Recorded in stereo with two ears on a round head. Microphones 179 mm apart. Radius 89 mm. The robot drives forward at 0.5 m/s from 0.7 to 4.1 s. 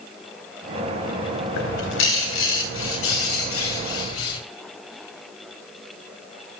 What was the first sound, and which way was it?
A bird, 65° left (ahead or behind).